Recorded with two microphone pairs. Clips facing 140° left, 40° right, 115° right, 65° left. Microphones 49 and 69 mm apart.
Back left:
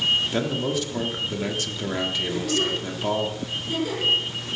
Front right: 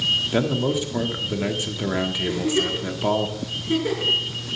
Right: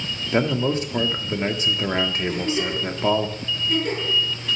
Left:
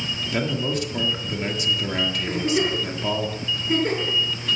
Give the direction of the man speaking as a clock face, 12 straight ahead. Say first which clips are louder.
Front right 3 dB, right 5 dB; 3 o'clock.